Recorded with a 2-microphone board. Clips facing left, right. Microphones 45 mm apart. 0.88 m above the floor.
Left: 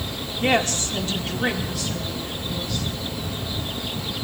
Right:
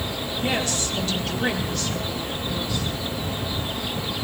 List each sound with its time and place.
0.4 s a woman speaking: 60° left (ahead or behind), 2.0 m; by 2.9 s 15° right (ahead or behind), 3 m